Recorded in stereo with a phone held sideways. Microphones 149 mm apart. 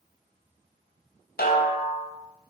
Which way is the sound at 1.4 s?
80° left.